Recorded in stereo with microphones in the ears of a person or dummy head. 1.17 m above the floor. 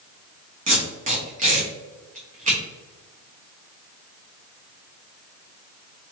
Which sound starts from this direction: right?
Tape being pulled, at 0.7 s.